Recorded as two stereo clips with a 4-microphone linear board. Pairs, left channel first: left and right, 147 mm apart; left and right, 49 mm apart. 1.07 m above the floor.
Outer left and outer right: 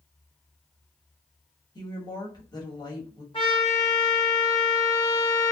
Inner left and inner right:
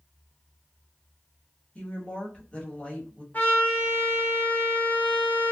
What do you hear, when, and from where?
1.8 s a woman speaking: 30° left (ahead or behind), 1.1 m
3.3 s a trumpet: 35° left (ahead or behind), 1.1 m